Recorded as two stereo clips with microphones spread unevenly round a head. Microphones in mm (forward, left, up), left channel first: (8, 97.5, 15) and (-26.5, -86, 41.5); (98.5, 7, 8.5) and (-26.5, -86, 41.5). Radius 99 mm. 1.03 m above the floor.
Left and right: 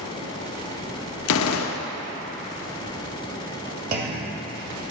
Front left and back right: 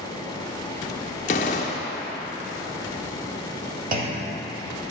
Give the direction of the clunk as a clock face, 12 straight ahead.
4 o'clock.